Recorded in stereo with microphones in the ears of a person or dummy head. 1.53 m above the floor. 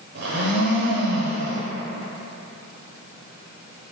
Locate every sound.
0.1 s a blender: 55° right (ahead or behind), 0.9 m